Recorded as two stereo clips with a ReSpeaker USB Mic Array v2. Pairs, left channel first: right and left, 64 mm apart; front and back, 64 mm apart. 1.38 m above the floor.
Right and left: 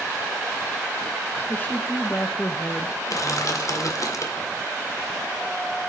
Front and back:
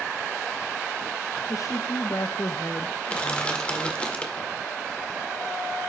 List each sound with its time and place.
1.5 s a woman speaking: 30° right, 1.0 m
3.0 s crushing: 70° right, 1.9 m